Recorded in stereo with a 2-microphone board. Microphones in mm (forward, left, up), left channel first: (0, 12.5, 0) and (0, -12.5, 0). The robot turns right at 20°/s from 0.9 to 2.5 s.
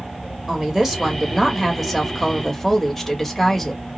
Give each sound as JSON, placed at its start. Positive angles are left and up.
{"t": 0.5, "sound": "a woman speaking", "azimuth_deg": -20, "distance_m": 1.4}